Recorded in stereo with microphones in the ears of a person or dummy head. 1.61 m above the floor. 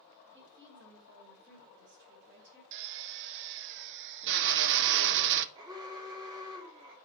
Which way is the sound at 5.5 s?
20° right (ahead or behind).